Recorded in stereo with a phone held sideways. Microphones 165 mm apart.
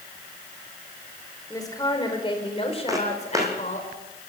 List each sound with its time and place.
1.5 s a woman speaking: 20° left (ahead or behind), 3.5 m; by 3.9 s 50° left (ahead or behind), 4 m
2.9 s footsteps: 20° right (ahead or behind), 3.5 m